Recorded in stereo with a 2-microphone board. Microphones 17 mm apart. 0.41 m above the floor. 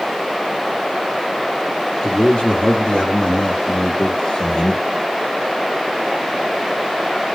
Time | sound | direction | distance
2.0 | a man speaking | 55° left (ahead or behind) | 6 m